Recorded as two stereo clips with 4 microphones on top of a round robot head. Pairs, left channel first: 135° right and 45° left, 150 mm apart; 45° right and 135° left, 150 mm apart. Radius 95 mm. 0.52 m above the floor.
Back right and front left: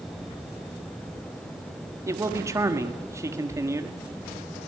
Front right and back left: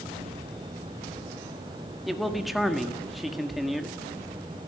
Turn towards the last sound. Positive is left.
turn(degrees=45)